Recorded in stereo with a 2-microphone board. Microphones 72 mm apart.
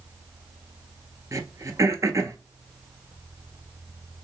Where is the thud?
I don't hear a thud.